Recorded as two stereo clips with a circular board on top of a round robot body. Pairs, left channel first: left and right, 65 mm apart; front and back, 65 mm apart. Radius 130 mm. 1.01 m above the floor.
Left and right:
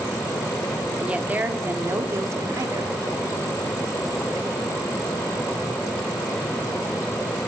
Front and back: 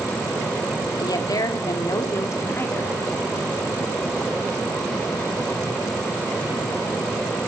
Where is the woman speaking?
20° right, 4 m; by 2.9 s 55° right, 5 m.